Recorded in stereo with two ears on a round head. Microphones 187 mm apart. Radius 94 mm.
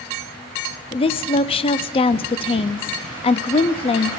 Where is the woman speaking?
25° left (ahead or behind), 0.6 m.